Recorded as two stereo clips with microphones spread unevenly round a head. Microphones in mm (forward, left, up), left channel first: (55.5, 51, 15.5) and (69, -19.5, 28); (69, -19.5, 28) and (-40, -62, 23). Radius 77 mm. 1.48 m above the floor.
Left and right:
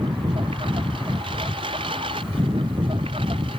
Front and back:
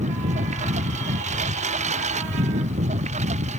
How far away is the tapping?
I don't hear tapping.